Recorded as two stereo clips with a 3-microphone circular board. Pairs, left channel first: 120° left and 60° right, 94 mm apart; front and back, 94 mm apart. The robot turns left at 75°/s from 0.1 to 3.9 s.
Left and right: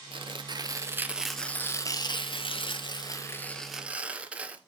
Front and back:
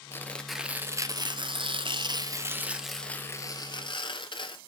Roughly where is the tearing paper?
Ahead right.